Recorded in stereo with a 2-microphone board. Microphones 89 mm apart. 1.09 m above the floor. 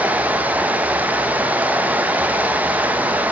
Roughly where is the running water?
Centre.